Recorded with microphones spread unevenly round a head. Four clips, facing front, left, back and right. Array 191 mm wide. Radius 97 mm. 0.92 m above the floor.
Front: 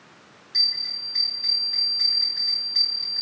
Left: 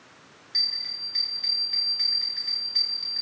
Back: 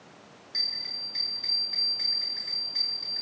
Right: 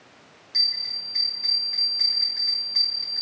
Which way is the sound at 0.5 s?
140° right.